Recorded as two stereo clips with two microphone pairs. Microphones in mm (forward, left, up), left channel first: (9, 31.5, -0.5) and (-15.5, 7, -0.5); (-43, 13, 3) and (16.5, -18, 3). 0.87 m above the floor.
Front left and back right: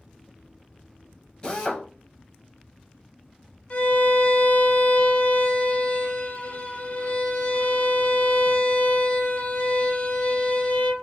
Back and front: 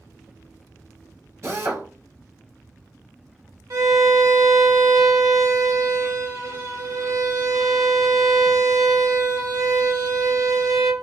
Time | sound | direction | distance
1.4 | a drill | 10° right | 1.1 m
3.7 | a violin | straight ahead | 0.8 m